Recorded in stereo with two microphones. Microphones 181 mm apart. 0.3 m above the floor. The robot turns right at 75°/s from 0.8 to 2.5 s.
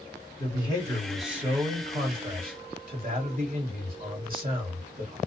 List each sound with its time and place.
0.4 s a man speaking: 150° left, 1.4 m; by 5.2 s 80° right, 1.4 m